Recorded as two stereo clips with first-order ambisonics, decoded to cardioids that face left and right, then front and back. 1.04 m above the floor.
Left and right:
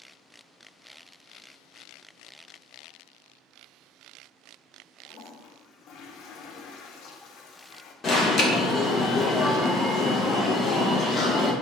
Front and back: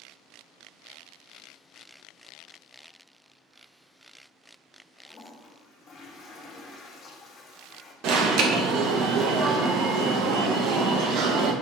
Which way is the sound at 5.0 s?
60° left.